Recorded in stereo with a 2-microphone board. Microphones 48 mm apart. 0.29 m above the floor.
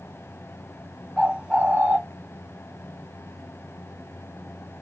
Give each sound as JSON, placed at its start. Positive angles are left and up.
{"t": 1.2, "sound": "a bird", "side_deg": -20, "distance_m": 0.5}